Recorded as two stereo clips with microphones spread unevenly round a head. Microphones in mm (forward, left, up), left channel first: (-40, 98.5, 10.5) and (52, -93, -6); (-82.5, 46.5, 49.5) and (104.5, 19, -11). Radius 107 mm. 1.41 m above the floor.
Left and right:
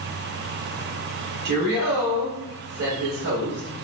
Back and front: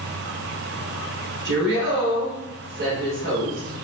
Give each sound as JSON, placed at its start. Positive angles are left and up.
{"t": 1.4, "sound": "a woman speaking", "azimuth_deg": -25, "distance_m": 1.2}